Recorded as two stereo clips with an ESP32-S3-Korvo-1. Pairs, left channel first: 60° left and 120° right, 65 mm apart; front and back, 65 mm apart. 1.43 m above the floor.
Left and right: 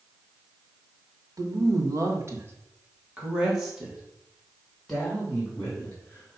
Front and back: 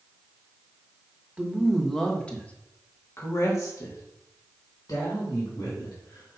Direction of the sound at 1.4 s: 105° right.